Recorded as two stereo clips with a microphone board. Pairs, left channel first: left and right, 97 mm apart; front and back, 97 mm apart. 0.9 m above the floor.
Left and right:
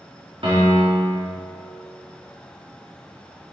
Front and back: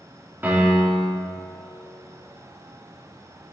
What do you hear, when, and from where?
0.4 s a piano: 110° right, 2 m